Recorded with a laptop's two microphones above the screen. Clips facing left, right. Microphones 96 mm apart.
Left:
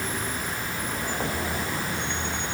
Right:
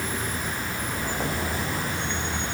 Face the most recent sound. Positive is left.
No sound to turn to.